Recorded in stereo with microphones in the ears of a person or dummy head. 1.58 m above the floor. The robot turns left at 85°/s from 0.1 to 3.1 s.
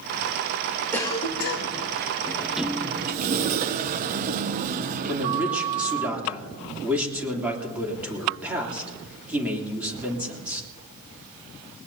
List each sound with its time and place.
0.9 s a cough: 165° left, 1.3 m; by 1.8 s 90° left, 1.3 m
2.3 s a sliding door: 20° left, 0.6 m; by 6.1 s 50° right, 0.6 m
5.1 s a man speaking: 15° right (ahead or behind), 3 m